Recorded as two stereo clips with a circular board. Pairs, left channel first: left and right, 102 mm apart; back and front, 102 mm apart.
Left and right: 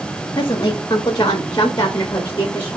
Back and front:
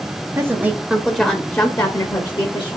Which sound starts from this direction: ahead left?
A woman speaking, at 0.3 s.